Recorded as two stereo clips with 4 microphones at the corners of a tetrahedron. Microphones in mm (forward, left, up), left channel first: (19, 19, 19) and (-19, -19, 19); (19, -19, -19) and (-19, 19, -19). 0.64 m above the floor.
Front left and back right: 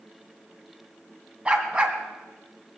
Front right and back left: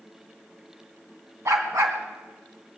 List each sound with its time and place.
1.4 s a dog barking: 155° left, 1.8 m